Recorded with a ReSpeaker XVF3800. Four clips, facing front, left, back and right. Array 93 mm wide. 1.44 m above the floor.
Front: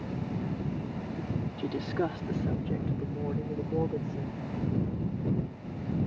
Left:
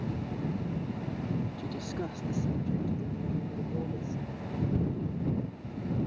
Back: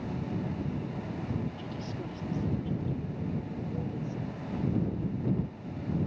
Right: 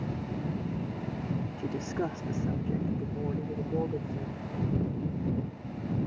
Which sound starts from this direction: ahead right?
A woman speaking, at 1.6 s.